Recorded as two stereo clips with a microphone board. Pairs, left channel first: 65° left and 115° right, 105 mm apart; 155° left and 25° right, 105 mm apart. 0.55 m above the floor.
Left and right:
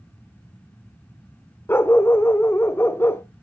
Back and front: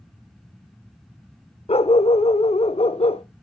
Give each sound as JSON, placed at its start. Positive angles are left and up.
{"t": 1.7, "sound": "a dog barking", "azimuth_deg": 135, "distance_m": 0.6}